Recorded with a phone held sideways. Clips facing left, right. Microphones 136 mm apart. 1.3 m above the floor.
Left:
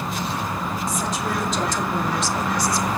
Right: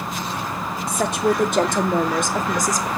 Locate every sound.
0.9 s a woman speaking: 65° right (ahead or behind), 2.5 m; by 2.9 s 40° right (ahead or behind), 1.2 m